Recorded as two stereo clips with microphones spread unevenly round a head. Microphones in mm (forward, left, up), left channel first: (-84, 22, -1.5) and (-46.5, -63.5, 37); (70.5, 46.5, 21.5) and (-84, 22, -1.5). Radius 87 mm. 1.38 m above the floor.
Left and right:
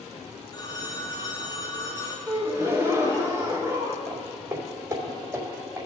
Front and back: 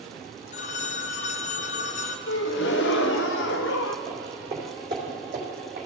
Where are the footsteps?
90° right, 3 m; by 5.8 s 115° right, 3 m.